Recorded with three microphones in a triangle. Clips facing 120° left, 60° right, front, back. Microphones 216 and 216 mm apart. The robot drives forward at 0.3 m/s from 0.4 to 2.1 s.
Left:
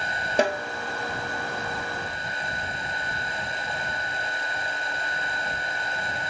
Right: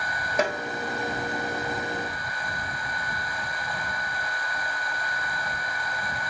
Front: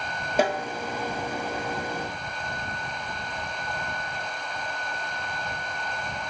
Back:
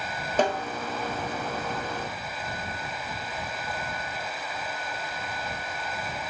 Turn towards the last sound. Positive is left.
turn(degrees=115)